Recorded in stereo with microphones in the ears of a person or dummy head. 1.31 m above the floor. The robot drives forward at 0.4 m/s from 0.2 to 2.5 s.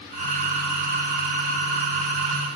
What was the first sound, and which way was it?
Only background noise.